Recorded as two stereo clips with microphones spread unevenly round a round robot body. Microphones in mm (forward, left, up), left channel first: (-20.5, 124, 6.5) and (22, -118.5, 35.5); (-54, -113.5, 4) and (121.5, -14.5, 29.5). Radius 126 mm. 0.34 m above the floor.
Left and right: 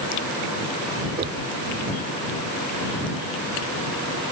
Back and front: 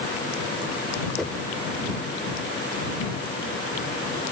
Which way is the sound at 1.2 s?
75° right.